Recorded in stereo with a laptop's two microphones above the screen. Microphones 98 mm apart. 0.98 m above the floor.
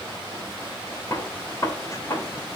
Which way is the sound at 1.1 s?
35° left (ahead or behind).